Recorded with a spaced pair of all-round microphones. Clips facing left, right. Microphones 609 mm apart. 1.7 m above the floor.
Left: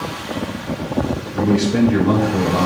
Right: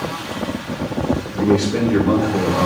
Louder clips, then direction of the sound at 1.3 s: Left 1 dB; 50° left (ahead or behind).